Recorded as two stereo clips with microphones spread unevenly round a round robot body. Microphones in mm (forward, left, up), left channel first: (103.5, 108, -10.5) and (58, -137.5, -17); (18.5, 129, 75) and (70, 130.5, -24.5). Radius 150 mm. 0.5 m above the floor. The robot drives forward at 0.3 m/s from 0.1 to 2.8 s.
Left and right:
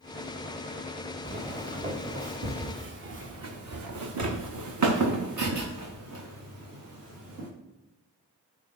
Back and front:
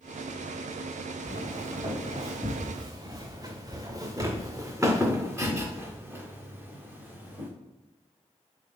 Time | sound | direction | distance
1.2 | footsteps | 35° right | 3.5 m